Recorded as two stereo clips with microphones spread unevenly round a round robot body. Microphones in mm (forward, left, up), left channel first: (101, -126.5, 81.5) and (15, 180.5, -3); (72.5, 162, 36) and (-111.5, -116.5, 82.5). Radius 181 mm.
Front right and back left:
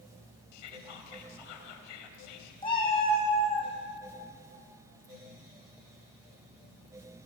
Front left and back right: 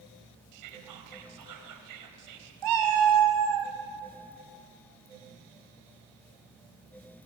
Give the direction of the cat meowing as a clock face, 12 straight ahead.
5 o'clock.